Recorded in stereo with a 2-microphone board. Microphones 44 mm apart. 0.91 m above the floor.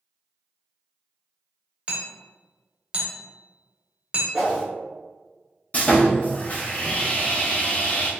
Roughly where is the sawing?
Left.